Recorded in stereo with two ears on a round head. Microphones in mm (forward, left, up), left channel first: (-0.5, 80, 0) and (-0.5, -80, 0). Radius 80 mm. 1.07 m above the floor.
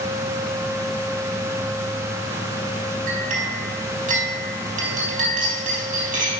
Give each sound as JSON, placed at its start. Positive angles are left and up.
{"t": 3.1, "sound": "a clink", "side_deg": -50, "distance_m": 4.5}